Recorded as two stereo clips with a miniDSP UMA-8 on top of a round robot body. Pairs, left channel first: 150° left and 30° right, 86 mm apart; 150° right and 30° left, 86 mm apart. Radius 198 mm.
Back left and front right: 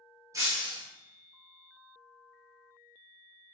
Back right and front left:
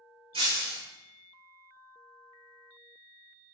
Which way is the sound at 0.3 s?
25° left.